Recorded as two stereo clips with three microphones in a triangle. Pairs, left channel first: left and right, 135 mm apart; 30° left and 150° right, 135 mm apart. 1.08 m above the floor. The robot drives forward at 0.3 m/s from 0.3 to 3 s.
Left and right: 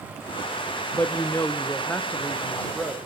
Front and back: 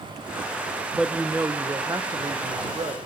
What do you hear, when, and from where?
0.9 s a woman speaking: 130° left, 0.5 m; by 3.1 s 170° left, 0.9 m